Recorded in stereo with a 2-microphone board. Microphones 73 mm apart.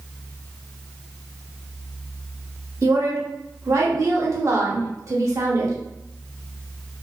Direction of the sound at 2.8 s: 45° right (ahead or behind).